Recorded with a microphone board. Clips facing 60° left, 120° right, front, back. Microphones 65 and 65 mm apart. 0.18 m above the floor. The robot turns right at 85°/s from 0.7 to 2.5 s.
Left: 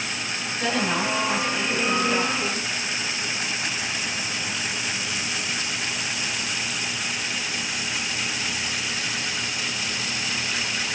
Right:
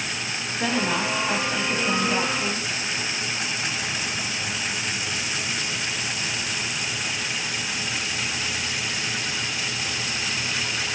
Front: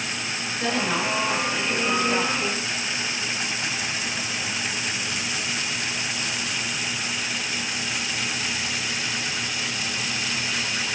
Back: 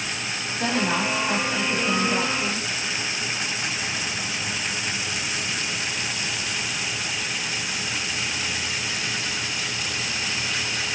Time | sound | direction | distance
0.6 | a woman speaking | 175° left | 1.9 m